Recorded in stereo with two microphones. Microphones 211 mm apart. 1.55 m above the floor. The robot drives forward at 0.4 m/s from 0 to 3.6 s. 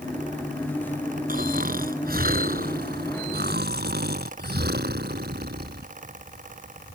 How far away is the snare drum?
No snare drum in this recording.